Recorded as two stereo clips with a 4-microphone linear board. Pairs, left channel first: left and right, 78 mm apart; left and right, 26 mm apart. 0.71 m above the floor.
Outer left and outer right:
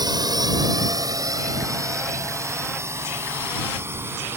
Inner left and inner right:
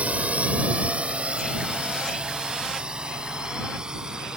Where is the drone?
60° right (ahead or behind); by 4.4 s 30° right (ahead or behind).